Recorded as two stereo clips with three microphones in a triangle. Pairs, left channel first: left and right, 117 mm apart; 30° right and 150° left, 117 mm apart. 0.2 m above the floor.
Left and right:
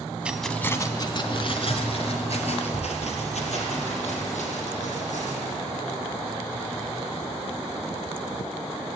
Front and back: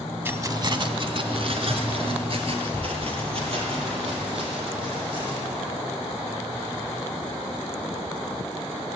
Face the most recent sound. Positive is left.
turn(degrees=110)